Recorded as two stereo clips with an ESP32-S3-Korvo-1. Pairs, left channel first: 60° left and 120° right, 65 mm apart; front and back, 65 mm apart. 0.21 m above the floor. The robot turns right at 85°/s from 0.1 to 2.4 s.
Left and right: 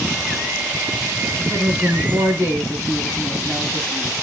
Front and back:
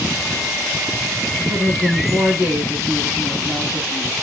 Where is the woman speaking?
170° left, 1.7 m; by 4.1 s 105° right, 1.7 m.